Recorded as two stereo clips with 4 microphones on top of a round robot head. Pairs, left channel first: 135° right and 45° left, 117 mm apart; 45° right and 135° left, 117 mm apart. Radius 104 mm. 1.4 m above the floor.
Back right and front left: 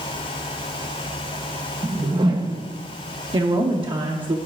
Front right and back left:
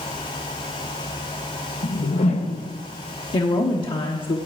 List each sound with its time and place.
1.8 s a whoosh: 10° right, 0.8 m
3.3 s a woman speaking: straight ahead, 1.0 m